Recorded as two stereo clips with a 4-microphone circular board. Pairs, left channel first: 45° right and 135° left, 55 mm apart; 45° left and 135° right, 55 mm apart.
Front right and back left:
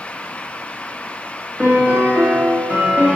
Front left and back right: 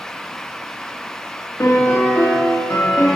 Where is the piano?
75° left, 1.6 m.